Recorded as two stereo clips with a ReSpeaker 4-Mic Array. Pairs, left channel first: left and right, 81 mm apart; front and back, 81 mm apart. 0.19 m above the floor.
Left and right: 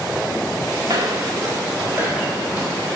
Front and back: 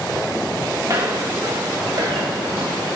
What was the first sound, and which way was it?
Footsteps, 130° right.